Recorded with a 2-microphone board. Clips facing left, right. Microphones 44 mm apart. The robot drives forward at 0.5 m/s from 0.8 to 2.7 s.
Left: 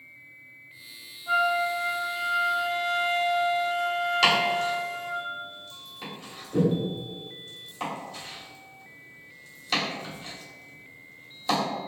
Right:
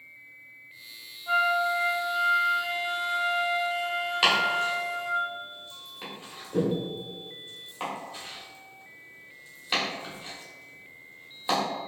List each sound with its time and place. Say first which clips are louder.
1.3 s a flute: even; 5° right (ahead or behind), 0.9 m
4.2 s chopping: even; 20° right (ahead or behind), 1.8 m